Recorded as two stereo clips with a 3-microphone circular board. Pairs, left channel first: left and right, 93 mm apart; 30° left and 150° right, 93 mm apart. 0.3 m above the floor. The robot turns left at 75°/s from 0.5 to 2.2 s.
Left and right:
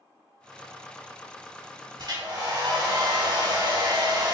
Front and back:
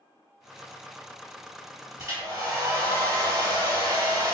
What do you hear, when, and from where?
2.0 s a hair dryer: 110° right, 2.0 m; by 4.3 s 125° right, 2.0 m